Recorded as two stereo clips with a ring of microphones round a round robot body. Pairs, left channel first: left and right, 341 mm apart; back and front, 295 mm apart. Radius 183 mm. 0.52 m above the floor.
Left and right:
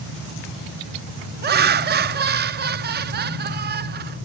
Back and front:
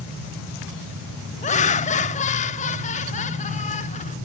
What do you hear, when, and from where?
1.4 s laughter: 130° right, 0.7 m